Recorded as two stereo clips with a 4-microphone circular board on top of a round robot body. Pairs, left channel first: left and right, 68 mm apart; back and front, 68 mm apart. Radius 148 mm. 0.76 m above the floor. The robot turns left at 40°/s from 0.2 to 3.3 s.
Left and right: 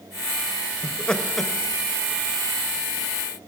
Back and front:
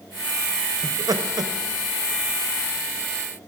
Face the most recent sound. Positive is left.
turn(degrees=-75)